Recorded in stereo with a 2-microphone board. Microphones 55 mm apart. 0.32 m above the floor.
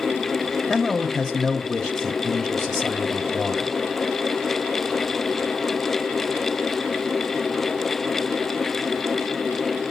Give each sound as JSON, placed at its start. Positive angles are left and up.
{"t": 0.7, "sound": "a man speaking", "side_deg": 5, "distance_m": 0.9}